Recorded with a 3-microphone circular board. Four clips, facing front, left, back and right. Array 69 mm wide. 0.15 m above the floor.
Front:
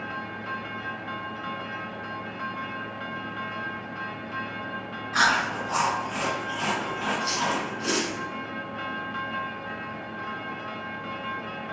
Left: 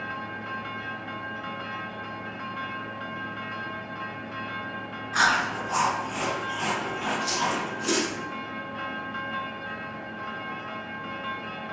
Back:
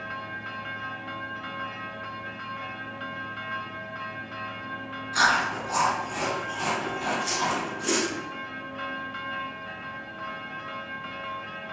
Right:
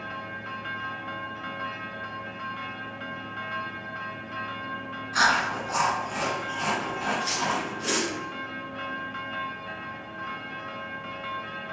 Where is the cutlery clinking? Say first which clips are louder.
Left 1 dB, front 1 dB; 110° right, 1.4 m.